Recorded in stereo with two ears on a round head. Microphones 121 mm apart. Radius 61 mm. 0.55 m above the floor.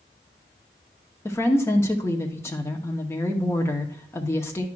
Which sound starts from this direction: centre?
A woman speaking, at 1.2 s.